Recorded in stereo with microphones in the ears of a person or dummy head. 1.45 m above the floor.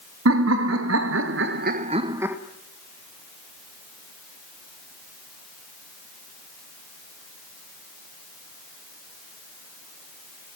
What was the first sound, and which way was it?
Laughter, 70° right (ahead or behind).